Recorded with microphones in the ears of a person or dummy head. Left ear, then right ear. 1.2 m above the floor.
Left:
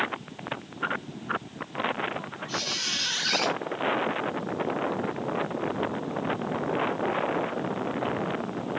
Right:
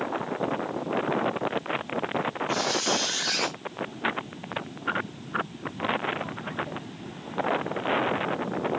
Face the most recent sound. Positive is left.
turn(degrees=30)  # may be behind; listen again after turning